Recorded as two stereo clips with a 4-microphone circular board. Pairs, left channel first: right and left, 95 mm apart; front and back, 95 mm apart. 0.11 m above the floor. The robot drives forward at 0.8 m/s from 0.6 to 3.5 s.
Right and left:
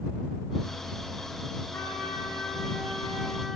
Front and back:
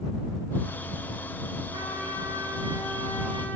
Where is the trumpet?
150° right, 6.5 m; by 3.6 s 155° right, 7.5 m.